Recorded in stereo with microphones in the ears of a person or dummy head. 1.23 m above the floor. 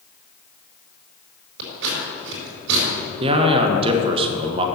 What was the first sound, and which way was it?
Scissors, 65° right (ahead or behind).